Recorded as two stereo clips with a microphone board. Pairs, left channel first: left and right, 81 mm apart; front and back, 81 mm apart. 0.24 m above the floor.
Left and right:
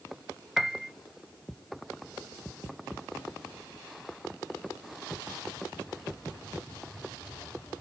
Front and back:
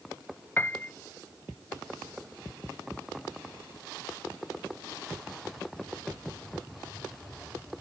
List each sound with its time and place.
0.6 s a piano: 10° right